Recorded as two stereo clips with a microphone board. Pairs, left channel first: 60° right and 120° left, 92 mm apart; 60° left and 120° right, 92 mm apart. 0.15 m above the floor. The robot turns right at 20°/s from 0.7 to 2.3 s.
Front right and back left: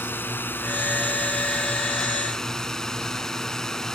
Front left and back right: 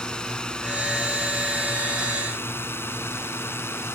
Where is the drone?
15° right; by 4.0 s 20° left.